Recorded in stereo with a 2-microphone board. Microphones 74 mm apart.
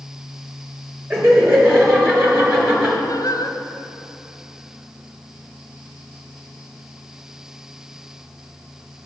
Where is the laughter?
30° right (ahead or behind), 3.5 m.